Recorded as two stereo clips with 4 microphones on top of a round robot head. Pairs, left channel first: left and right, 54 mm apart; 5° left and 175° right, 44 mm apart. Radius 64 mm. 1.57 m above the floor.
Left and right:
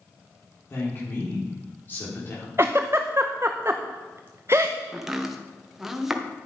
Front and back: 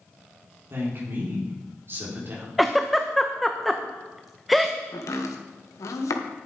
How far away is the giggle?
About 0.6 m.